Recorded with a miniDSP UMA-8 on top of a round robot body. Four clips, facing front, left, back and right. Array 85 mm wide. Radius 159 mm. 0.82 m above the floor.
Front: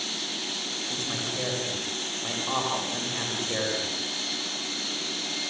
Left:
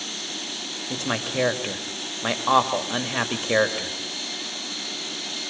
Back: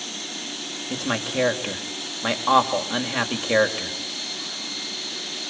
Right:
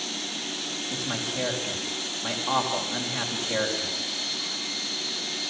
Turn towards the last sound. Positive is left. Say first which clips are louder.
# left 6 dB, back 10 dB
turn(degrees=140)